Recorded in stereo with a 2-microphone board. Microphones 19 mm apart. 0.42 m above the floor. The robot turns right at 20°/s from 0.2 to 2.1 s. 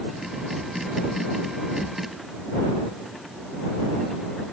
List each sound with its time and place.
Only background noise.